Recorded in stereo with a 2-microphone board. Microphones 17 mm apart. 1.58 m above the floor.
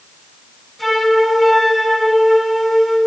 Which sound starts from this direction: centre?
A flute, at 0.8 s.